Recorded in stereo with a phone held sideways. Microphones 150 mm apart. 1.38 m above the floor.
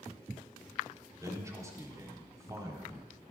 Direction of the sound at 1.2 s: 20° right (ahead or behind).